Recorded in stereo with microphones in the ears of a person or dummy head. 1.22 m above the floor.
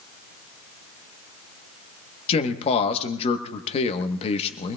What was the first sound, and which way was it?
A man speaking, 30° left (ahead or behind).